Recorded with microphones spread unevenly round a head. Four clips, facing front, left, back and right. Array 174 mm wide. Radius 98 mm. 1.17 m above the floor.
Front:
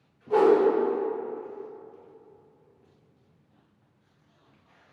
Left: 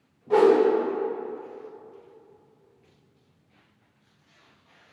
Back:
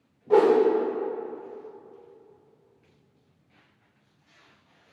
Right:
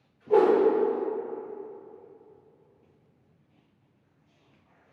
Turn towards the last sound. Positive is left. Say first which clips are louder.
# left 2 dB, back 1 dB
turn(degrees=-165)